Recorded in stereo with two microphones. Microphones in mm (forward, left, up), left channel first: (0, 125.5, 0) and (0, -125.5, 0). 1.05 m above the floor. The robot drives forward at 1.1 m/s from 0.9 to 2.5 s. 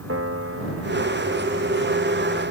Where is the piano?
65° right (ahead or behind); by 2.4 s 45° right (ahead or behind).